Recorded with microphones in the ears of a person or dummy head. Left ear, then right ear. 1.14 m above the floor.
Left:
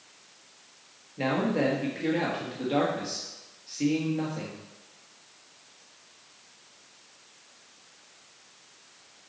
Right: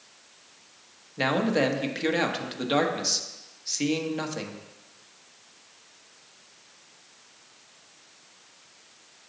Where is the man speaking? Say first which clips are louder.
Right 3 dB; 45° right (ahead or behind), 1.3 m.